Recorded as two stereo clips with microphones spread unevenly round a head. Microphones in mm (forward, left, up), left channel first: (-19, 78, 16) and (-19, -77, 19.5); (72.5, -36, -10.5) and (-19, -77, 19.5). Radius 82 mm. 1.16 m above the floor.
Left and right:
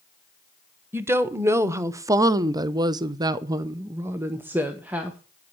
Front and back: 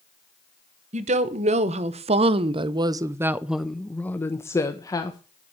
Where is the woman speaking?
165° right, 1.3 m; by 5.2 s 10° right, 1.2 m.